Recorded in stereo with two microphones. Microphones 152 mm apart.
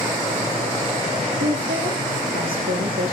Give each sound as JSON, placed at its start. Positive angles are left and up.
{"t": 1.4, "sound": "a woman speaking", "side_deg": -85, "distance_m": 8.0}